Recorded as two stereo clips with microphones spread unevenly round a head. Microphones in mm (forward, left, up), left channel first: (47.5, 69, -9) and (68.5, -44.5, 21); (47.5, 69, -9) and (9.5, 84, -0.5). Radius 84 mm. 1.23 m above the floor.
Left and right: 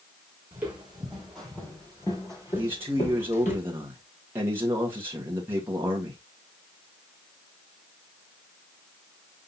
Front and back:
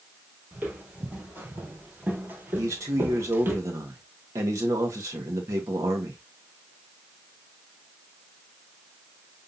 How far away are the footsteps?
About 2.5 m.